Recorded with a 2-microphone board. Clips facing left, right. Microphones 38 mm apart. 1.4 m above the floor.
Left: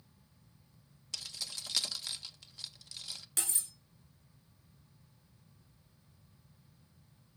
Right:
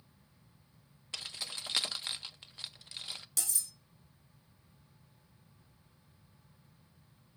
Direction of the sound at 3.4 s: 40° left (ahead or behind).